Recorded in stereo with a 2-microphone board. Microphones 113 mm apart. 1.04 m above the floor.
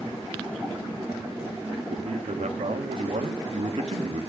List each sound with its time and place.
1.9 s a man speaking: 85° right, 1.4 m